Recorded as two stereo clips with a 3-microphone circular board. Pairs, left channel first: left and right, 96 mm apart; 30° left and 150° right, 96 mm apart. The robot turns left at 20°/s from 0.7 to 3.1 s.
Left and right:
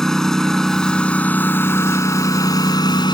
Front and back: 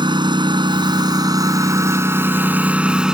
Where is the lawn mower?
175° left; by 3.1 s 125° left.